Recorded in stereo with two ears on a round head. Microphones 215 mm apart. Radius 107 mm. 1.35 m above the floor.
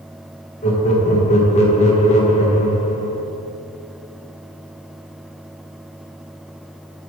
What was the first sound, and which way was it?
Laughter, 30° left (ahead or behind).